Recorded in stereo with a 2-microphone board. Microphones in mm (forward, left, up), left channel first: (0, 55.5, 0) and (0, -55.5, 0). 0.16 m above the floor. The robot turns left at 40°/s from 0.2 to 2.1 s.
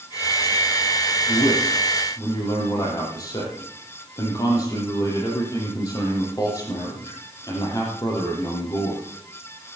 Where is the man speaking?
70° left, 6.5 m; by 9.0 s 35° left, 6.5 m.